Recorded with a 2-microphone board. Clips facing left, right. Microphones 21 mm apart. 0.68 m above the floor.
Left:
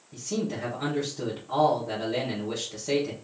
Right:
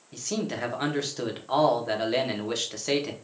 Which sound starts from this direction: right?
A man speaking, at 0.1 s.